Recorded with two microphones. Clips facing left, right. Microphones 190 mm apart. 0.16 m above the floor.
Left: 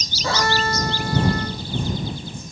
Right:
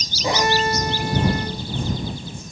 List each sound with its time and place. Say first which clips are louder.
0.2 s a violin: right 2 dB; 15° right (ahead or behind)